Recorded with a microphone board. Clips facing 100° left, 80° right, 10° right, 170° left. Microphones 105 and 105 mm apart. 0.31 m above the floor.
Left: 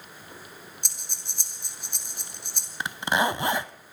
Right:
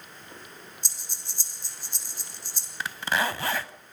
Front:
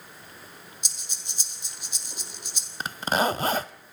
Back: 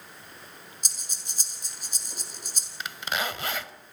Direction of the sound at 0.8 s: 125° left.